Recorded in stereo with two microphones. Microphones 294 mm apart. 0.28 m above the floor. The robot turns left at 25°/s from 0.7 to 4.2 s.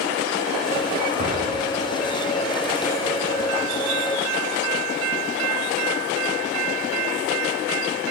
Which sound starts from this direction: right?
An explosion, at 1.2 s.